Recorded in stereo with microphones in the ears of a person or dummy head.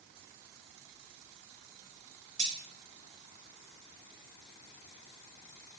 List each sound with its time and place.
2.4 s cutlery clinking: 15° right (ahead or behind), 0.5 m